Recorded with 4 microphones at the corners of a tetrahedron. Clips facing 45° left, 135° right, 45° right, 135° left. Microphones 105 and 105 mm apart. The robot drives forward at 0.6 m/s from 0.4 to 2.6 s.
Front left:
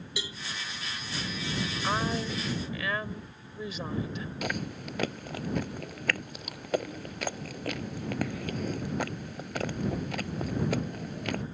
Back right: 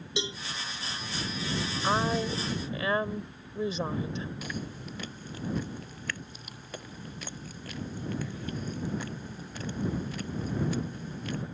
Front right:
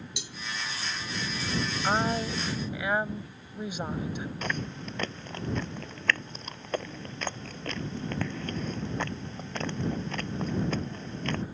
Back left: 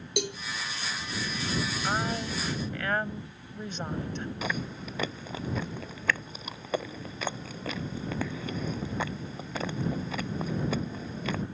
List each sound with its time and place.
0.2 s a cowbell: 160° left
1.8 s a woman speaking: 75° right; by 4.3 s 115° right
4.4 s chewing: 50° left